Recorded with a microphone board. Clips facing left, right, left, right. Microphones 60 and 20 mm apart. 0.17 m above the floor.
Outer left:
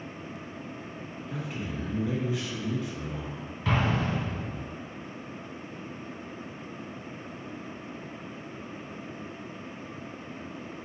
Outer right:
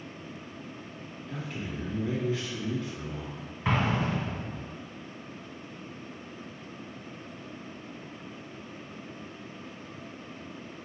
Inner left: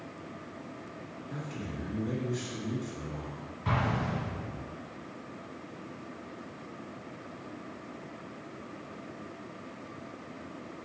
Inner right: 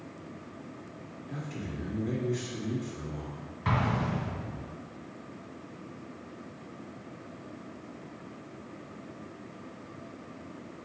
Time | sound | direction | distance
1.3 | a man speaking | 5° left (ahead or behind) | 1.8 m
3.6 | an explosion | 25° right (ahead or behind) | 1.5 m